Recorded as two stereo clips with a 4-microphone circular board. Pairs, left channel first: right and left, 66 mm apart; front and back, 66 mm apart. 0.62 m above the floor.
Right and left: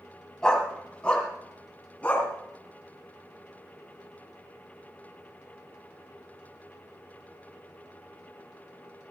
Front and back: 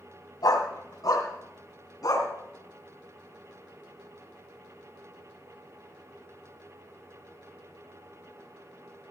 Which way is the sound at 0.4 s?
15° right.